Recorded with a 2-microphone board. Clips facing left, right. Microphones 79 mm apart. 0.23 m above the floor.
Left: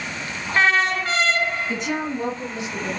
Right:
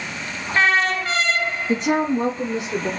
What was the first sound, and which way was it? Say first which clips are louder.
A woman speaking: right 6 dB; 45° right (ahead or behind).